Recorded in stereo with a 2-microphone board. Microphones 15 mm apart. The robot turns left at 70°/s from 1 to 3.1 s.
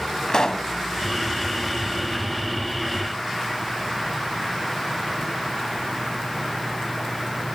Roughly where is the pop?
Left.